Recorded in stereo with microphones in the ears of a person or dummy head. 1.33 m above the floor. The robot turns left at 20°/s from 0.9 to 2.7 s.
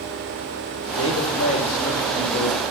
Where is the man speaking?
105° left, 0.8 m; by 2.6 s 70° left, 0.8 m.